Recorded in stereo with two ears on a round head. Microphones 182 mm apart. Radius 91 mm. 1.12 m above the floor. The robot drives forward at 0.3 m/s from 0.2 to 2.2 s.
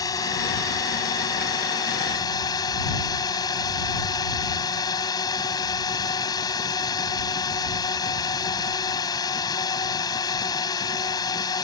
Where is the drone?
20° left (ahead or behind).